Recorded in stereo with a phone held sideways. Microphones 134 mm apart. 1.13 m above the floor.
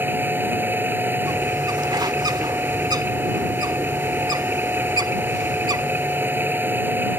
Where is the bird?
30° right (ahead or behind).